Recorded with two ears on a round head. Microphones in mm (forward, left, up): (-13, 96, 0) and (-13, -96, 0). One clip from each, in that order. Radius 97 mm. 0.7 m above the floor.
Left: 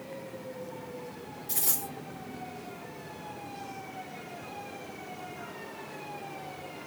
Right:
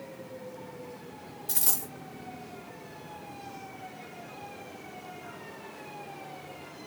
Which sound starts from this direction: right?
A dropped coin, at 1.5 s.